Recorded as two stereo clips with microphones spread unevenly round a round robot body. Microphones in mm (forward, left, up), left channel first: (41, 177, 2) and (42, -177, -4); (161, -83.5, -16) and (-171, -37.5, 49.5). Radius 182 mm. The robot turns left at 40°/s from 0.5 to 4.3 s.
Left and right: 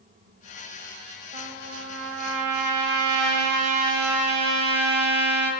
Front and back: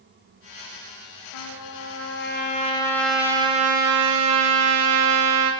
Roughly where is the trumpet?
Ahead.